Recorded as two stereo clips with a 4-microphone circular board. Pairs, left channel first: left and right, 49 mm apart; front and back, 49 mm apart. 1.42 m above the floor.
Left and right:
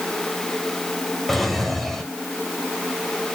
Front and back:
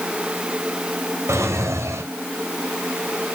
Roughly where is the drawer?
Behind.